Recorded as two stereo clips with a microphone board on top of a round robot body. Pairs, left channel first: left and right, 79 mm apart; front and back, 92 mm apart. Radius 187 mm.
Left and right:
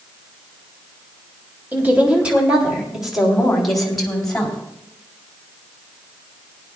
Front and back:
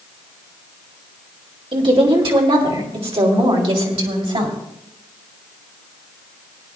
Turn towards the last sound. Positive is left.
turn(degrees=170)